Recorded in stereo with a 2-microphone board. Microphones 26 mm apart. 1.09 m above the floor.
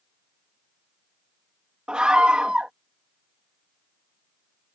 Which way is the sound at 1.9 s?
45° right (ahead or behind).